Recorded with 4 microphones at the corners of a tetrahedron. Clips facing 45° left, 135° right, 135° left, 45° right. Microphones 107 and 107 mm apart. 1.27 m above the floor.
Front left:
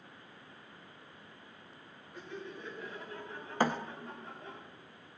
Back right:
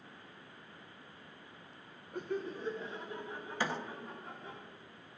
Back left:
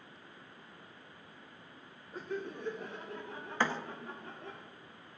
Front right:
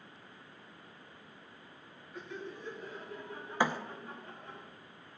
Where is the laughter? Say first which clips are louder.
Back right 7 dB, back left 4 dB; 170° right, 1.2 m; by 4.6 s 135° left, 3.5 m.